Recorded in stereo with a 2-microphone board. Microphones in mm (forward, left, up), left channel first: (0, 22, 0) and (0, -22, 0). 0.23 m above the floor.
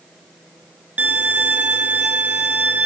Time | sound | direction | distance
1.0 | a violin | 40° right (ahead or behind) | 0.7 m